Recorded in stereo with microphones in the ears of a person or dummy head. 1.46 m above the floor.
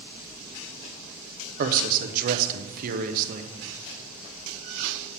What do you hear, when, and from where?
1.6 s a man speaking: 50° right (ahead or behind), 0.7 m